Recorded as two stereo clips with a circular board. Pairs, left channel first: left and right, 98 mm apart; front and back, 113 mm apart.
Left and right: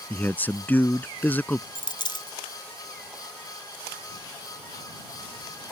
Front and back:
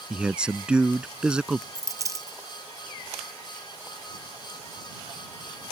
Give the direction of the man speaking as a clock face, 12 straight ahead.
8 o'clock.